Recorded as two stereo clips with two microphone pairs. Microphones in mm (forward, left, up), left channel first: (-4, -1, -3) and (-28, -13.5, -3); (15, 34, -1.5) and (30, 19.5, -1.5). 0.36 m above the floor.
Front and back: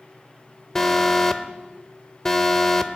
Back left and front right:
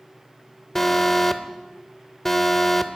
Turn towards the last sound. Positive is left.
turn(degrees=80)